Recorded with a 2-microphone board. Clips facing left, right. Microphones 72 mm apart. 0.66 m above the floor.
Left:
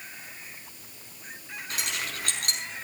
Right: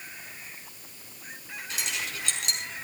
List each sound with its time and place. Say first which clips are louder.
1.7 s keys jangling: left 1 dB; 50° left (ahead or behind), 5 m